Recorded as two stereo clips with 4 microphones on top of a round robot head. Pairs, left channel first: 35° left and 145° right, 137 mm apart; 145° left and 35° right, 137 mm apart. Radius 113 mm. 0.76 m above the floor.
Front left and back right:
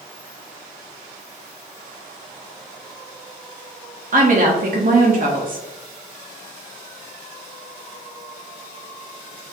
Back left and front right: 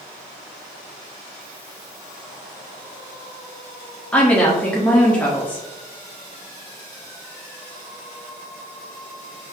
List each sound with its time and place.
4.1 s a woman speaking: 135° right, 1.1 m